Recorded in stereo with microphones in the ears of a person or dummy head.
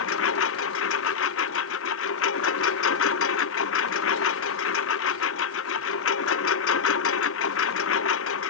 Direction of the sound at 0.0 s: 75° left (ahead or behind).